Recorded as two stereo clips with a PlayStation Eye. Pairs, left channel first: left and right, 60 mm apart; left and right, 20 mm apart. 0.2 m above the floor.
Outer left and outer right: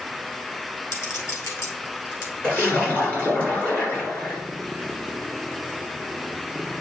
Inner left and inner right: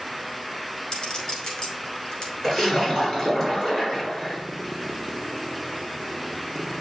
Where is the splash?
30° left (ahead or behind), 3.5 m.